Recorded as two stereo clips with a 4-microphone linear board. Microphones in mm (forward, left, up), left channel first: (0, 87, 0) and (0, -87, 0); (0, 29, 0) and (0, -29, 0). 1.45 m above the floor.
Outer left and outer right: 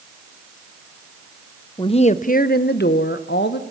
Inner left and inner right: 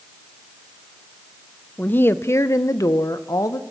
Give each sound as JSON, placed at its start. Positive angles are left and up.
{"t": 1.8, "sound": "a woman speaking", "side_deg": 30, "distance_m": 0.9}